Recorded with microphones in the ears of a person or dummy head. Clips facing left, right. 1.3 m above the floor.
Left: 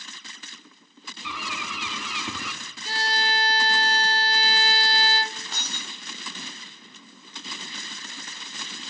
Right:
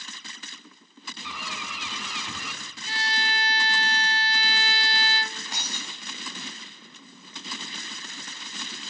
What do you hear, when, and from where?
1.2 s a bird: 65° left (ahead or behind), 2.5 m
2.9 s a violin: 30° left (ahead or behind), 0.9 m
5.5 s breaking glass: 10° right (ahead or behind), 4 m